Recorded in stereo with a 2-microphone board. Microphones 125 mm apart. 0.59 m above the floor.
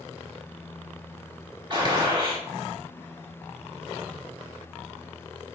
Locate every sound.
1.7 s a gunshot: 35° right (ahead or behind), 1.1 m